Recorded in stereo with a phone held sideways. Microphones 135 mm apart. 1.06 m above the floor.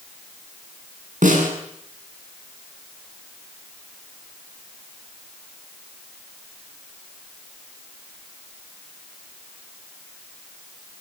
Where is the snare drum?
70° right (ahead or behind), 9 m.